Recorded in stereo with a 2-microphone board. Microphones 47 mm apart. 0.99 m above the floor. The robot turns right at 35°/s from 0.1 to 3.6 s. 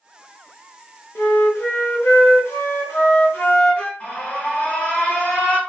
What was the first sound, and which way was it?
A flute, 55° left.